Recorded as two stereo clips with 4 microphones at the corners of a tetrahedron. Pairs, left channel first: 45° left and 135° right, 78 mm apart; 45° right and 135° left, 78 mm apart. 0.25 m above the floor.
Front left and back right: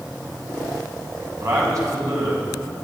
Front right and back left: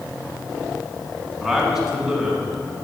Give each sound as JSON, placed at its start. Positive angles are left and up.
{"t": 1.4, "sound": "a man speaking", "azimuth_deg": -145, "distance_m": 2.0}